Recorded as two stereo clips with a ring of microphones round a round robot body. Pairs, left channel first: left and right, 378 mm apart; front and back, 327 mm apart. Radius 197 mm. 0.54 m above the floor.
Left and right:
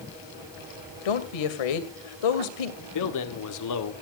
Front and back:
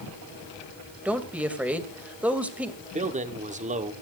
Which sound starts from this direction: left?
A woman speaking, at 1.1 s.